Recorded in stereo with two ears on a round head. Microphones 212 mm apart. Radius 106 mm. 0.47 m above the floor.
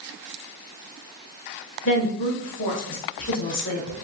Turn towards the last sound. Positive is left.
turn(degrees=55)  # may be behind; listen again after turning